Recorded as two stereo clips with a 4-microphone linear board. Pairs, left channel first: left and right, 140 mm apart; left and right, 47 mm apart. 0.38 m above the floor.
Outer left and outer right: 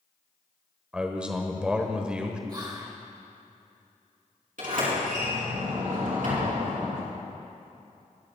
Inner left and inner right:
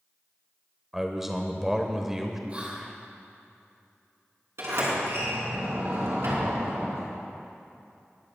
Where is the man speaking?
10° right (ahead or behind), 1.1 m.